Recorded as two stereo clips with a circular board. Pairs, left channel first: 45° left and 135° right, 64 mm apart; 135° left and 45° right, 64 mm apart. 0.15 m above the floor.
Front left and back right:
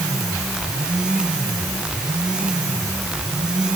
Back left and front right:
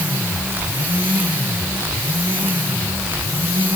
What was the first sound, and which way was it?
Only background noise.